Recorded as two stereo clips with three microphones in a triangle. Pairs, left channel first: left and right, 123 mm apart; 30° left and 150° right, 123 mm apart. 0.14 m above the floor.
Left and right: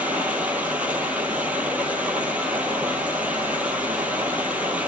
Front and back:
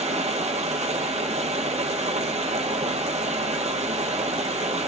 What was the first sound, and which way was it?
Running water, 170° right.